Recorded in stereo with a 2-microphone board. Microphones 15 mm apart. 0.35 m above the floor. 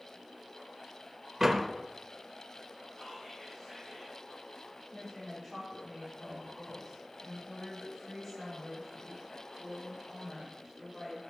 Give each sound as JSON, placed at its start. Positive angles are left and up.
{"t": 1.4, "sound": "a door slam", "side_deg": -25, "distance_m": 0.6}
{"t": 2.9, "sound": "whispering", "side_deg": 15, "distance_m": 3.0}
{"t": 4.9, "sound": "a woman speaking", "side_deg": 15, "distance_m": 3.0}